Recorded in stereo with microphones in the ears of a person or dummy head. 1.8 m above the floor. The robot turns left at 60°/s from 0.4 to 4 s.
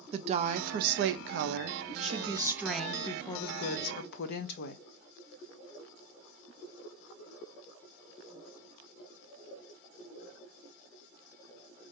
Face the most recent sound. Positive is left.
turn(degrees=105)